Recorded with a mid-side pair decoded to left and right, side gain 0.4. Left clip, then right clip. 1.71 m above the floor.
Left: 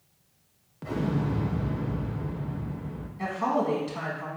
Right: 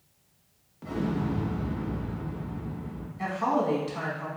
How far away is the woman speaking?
About 1.0 m.